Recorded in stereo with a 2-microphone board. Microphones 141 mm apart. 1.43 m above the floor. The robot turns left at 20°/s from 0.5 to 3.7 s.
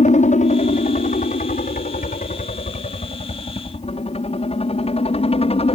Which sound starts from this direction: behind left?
A helicopter, at 0.0 s.